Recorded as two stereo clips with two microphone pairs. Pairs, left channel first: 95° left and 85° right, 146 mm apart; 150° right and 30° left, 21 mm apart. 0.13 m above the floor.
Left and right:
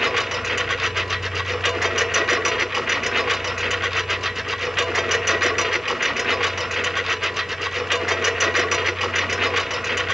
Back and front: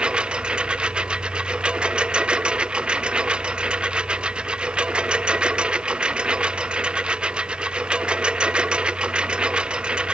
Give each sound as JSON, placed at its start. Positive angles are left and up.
{"t": 0.0, "sound": "a lawn mower", "azimuth_deg": 5}